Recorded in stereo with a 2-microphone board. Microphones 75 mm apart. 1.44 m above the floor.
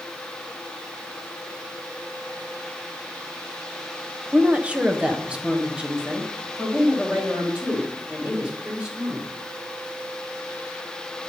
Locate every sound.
4.3 s a woman speaking: 15° right (ahead or behind), 0.8 m